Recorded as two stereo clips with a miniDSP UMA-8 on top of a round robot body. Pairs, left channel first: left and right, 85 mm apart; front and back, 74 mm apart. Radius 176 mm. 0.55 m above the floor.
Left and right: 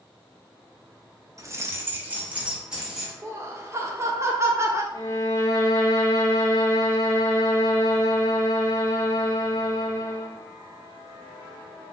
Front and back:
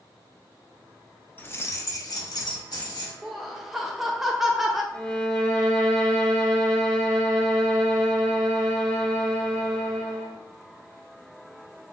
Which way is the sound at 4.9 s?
65° left.